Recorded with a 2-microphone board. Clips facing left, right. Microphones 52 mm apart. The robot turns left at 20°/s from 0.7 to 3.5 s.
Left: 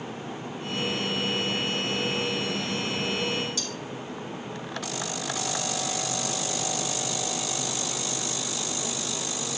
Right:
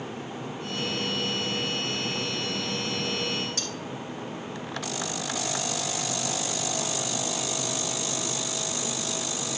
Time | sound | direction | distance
3.6 | cutlery clinking | 50° right (ahead or behind) | 1.8 m